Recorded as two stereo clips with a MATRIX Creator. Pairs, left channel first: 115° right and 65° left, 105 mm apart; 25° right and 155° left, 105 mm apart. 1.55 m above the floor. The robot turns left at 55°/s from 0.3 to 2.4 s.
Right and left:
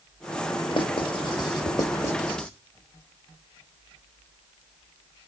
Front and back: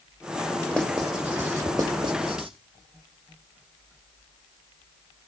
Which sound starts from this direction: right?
Writing, at 0.7 s.